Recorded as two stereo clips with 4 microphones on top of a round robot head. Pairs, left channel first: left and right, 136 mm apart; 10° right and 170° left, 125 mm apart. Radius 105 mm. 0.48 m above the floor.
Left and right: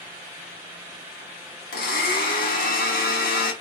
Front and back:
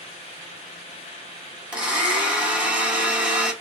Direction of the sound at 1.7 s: 90° left.